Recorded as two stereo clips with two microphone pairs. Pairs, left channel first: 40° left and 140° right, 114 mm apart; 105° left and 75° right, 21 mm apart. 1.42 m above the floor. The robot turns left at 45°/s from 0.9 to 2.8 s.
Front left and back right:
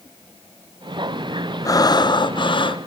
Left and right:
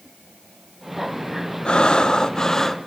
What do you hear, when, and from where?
1.6 s breathing: 80° left, 0.5 m; by 2.8 s 30° left, 0.5 m